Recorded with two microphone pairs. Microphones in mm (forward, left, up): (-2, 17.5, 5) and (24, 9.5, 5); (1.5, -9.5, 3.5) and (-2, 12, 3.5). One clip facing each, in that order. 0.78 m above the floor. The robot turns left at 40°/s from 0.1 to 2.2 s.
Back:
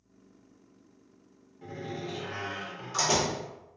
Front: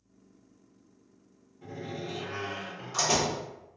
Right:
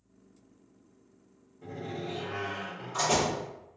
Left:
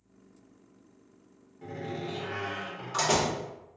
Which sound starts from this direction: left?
A door slam, at 1.6 s.